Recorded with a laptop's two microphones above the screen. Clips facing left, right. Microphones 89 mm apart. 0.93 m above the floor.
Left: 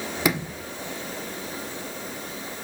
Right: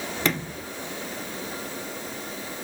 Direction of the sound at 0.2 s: 10° left (ahead or behind).